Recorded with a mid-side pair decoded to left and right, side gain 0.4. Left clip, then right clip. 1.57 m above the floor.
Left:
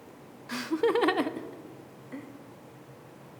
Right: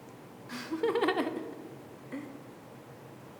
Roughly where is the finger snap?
I don't hear a finger snap.